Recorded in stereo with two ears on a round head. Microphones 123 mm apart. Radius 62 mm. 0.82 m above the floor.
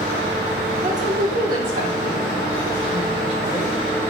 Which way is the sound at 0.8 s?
55° right (ahead or behind).